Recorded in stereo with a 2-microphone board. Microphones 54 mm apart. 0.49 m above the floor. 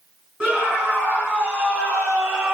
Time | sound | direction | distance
0.4 | a scream | 15° right (ahead or behind) | 6 m